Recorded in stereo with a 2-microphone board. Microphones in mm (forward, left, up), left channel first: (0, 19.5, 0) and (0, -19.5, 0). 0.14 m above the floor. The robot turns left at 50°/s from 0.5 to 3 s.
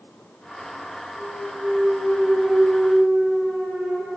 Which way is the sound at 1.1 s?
Centre (ahead or behind).